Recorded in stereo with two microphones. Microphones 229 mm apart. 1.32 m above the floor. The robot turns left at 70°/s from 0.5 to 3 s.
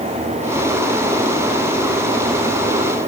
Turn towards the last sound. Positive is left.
No sound to turn to.